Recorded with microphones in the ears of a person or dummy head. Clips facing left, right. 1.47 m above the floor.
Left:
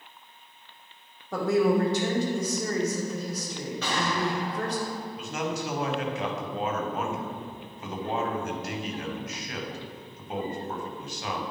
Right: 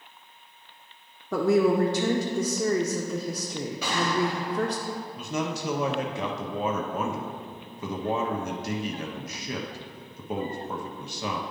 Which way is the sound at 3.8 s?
10° right (ahead or behind).